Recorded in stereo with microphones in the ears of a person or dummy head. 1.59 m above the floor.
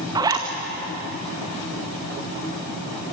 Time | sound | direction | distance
0.1 | a zipper | 10° right (ahead or behind) | 1.8 m